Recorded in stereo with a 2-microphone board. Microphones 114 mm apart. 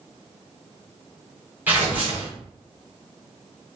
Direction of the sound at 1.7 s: 15° right (ahead or behind).